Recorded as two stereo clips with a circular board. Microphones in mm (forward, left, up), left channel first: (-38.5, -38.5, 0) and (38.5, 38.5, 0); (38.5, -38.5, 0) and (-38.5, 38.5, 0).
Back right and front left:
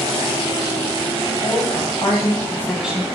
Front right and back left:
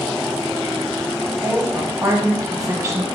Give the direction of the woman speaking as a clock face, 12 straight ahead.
5 o'clock.